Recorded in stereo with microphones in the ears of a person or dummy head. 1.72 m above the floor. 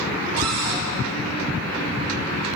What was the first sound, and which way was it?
A cupboard door, 80° right.